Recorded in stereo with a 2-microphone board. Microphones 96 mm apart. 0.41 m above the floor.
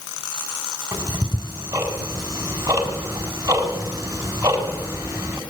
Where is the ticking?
35° right (ahead or behind), 3.5 m.